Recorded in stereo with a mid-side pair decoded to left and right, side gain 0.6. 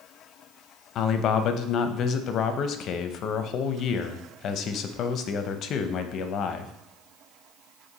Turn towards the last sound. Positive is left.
turn(degrees=55)